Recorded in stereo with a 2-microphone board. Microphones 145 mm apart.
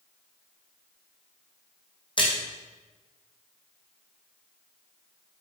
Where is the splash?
35° left (ahead or behind), 3 m.